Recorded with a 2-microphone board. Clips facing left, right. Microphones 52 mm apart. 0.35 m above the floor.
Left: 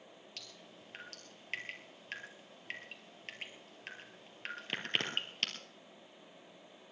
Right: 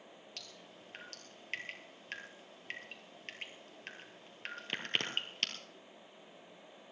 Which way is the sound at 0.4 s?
Centre (ahead or behind).